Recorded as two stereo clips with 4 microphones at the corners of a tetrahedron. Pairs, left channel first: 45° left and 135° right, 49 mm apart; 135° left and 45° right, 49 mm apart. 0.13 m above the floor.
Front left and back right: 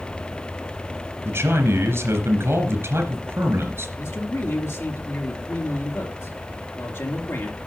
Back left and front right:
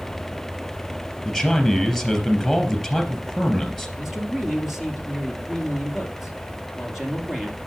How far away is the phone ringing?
I don't hear a phone ringing.